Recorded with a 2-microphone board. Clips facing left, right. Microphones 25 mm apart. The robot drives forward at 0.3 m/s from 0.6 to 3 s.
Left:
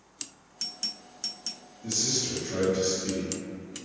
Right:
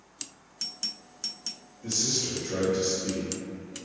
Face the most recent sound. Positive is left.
turn(degrees=-30)  # may be behind; listen again after turning